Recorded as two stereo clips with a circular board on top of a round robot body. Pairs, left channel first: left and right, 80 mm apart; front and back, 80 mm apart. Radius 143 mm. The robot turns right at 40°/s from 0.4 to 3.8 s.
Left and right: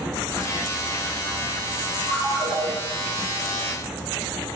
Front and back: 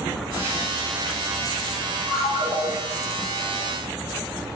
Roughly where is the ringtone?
Ahead.